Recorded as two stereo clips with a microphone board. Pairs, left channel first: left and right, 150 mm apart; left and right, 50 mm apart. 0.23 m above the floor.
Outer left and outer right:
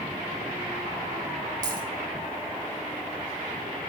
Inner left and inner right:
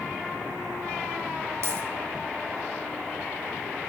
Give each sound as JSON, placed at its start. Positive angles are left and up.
{"t": 1.6, "sound": "a dropped coin", "side_deg": -65, "distance_m": 3.5}